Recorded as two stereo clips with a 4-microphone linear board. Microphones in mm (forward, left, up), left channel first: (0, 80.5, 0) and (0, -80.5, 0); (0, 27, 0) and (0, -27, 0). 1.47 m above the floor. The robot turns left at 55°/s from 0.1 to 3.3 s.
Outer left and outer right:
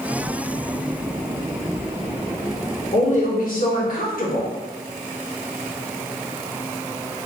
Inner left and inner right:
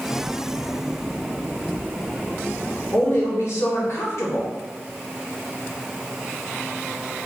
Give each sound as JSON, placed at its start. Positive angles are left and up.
{"t": 2.9, "sound": "a woman speaking", "side_deg": 40, "distance_m": 1.0}